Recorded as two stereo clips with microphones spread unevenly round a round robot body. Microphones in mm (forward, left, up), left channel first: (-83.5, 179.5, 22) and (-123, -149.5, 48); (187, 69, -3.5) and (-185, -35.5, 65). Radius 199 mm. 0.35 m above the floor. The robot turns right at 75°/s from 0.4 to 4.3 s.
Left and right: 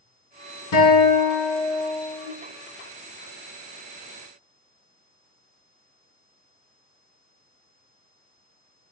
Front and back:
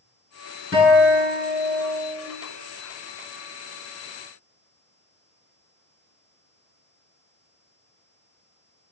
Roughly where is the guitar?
Left.